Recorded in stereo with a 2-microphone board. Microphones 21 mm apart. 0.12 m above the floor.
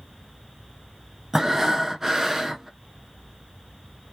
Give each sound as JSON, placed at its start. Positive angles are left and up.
{"t": 1.3, "sound": "breathing", "side_deg": -15, "distance_m": 0.5}